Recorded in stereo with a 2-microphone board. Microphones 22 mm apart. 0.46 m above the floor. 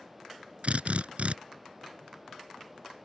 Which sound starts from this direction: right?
A drill, at 0.6 s.